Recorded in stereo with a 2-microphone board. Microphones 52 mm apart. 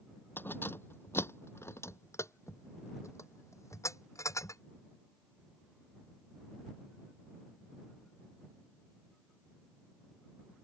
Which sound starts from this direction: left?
Keys jangling, at 0.4 s.